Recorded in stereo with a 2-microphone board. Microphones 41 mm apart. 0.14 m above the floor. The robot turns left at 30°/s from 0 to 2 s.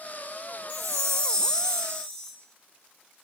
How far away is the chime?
About 5 m.